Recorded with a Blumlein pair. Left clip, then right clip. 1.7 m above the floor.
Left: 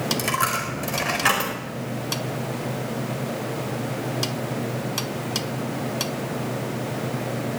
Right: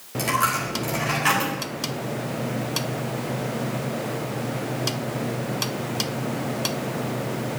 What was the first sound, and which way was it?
A dropped coin, 15° left.